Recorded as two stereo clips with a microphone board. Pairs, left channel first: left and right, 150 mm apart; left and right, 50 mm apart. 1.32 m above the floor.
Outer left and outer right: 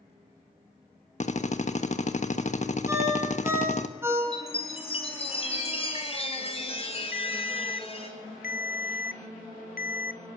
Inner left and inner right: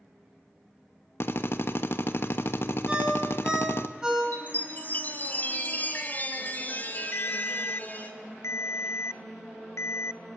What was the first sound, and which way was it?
A drill, 50° left (ahead or behind).